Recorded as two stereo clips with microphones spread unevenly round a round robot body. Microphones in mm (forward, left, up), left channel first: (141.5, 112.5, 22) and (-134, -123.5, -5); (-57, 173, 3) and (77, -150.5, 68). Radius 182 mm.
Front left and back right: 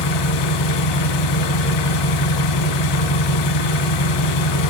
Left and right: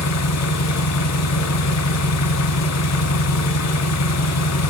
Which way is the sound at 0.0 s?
65° left.